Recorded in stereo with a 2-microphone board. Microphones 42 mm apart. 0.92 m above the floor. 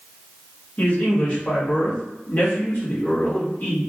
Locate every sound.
0.8 s a man speaking: 40° left (ahead or behind), 1.4 m